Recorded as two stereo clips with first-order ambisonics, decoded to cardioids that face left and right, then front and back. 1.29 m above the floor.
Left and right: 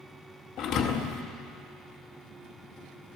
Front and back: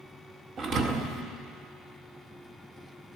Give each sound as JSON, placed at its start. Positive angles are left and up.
{"t": 0.6, "sound": "a thud", "azimuth_deg": 125, "distance_m": 0.8}